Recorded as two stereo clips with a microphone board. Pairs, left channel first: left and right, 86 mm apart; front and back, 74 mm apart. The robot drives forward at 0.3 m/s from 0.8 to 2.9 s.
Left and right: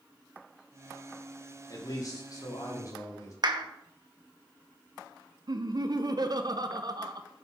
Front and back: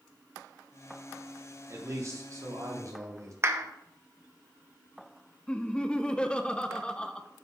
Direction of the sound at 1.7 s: 130° left.